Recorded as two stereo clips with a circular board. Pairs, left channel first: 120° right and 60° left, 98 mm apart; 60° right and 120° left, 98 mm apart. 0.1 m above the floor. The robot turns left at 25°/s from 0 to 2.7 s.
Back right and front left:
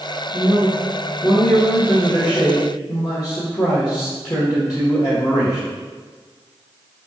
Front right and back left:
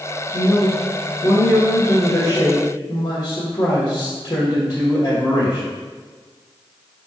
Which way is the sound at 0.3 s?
35° right.